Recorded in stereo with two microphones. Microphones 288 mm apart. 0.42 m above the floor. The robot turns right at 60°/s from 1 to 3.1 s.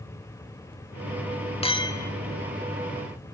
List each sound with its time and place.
1.6 s a clink: 20° left (ahead or behind), 0.8 m; by 2.1 s 10° left (ahead or behind), 0.8 m